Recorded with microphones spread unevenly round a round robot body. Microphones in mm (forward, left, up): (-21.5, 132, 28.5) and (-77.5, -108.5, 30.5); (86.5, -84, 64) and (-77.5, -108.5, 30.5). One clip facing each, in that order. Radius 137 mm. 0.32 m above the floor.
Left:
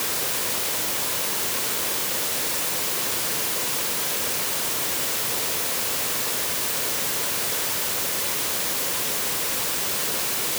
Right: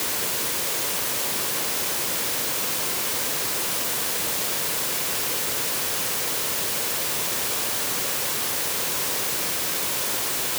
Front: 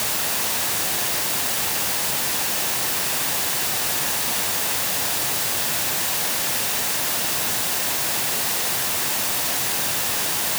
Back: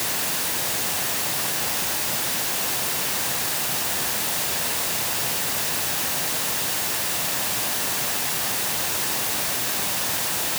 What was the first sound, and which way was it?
Only background noise.